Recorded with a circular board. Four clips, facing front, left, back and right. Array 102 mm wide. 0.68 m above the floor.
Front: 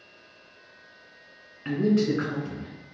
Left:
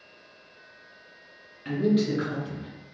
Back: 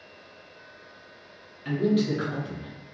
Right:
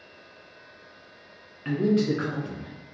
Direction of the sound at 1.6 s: 30° right.